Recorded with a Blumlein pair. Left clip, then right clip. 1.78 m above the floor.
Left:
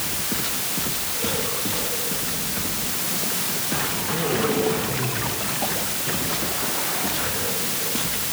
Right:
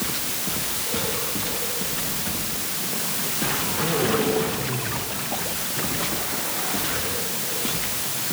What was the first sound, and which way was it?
Only background noise.